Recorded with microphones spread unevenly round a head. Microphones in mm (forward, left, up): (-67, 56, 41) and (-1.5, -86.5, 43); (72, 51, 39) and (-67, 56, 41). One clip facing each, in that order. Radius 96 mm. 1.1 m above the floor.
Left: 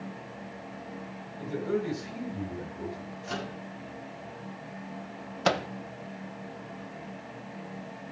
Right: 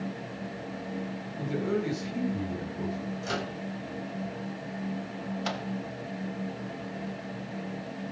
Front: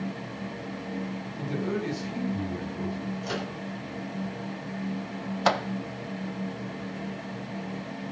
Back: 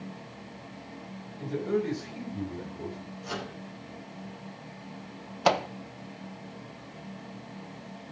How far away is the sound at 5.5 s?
About 0.5 m.